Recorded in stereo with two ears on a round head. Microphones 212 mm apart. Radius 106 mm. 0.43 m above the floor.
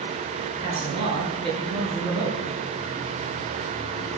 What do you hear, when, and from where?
0.6 s a man speaking: 20° right (ahead or behind), 8 m